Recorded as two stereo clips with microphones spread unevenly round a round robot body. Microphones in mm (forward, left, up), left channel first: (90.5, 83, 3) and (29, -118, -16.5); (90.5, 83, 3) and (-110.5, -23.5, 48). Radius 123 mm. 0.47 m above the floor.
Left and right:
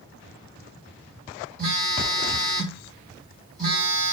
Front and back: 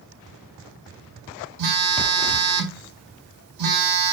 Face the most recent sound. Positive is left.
turn(degrees=180)